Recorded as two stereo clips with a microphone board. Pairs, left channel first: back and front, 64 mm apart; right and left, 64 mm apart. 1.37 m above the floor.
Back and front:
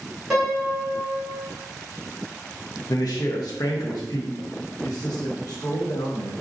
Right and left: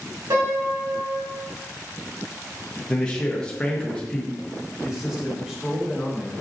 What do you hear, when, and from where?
0.3 s a piano: 85° left, 1.6 m
2.9 s a man speaking: 165° right, 0.6 m
4.8 s a man speaking: 170° left, 1.2 m